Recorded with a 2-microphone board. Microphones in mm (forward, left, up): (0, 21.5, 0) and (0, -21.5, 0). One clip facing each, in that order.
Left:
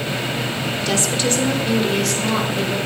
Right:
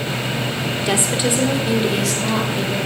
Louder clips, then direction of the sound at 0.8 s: Right 1 dB; 25° right (ahead or behind).